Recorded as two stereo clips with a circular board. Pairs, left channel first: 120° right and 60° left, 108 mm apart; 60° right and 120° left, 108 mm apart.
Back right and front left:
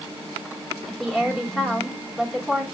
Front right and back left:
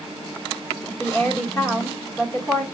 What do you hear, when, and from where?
0.9 s a woman speaking: 30° right, 1.3 m